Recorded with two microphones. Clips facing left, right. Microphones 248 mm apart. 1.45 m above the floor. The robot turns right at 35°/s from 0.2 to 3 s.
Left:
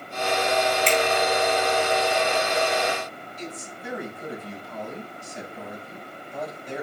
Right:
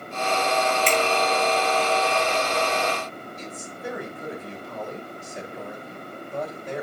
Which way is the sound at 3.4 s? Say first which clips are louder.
Left 1 dB; 75° right (ahead or behind).